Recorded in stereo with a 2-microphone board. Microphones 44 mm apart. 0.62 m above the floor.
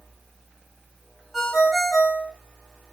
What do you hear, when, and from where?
1.3 s a ringtone: 5° right (ahead or behind), 3 m